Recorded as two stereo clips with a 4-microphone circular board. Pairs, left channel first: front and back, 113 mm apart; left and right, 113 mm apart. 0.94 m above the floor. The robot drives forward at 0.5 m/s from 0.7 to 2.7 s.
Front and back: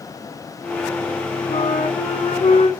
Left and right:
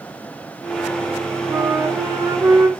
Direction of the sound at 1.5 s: 20° right.